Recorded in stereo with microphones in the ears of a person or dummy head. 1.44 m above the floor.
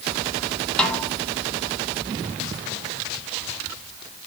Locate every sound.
0.8 s a snare drum: centre (ahead or behind), 1.6 m